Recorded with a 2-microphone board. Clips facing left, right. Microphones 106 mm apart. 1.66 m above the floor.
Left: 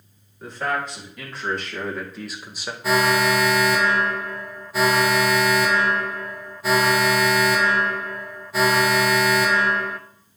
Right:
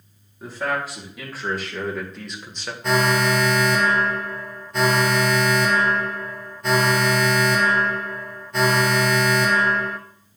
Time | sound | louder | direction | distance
0.4 | a man speaking | even | 5° right (ahead or behind) | 3.5 m
2.8 | an alarm | left 1 dB | 5° left (ahead or behind) | 0.6 m